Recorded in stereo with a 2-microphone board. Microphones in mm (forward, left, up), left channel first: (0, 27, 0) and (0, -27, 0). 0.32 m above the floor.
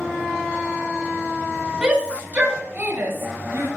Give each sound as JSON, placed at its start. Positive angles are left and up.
{"t": 1.8, "sound": "a shout", "side_deg": -15, "distance_m": 2.5}